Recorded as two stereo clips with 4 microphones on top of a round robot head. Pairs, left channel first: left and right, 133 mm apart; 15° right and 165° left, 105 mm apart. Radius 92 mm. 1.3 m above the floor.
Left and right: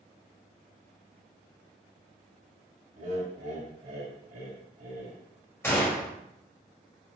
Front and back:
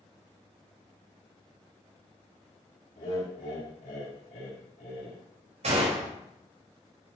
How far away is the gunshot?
About 3.5 m.